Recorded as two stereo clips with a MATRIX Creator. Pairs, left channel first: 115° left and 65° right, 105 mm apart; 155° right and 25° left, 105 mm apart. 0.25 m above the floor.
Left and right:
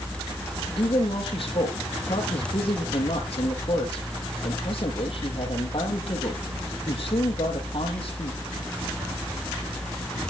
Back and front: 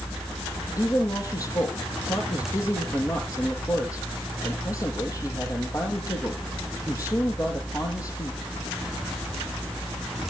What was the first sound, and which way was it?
A woman speaking, 145° left.